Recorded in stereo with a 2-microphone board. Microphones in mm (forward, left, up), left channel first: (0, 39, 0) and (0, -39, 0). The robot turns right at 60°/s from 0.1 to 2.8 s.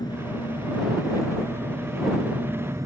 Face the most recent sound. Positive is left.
turn(degrees=-135)